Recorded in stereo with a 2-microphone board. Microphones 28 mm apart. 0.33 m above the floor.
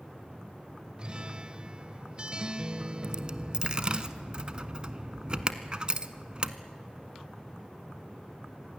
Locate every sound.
1.0 s a guitar: 35° right (ahead or behind), 0.8 m
3.0 s a dropped coin: 35° right (ahead or behind), 0.9 m